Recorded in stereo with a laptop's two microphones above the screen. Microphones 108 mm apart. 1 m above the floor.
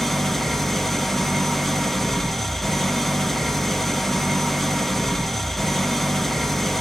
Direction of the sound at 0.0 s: Centre (ahead or behind).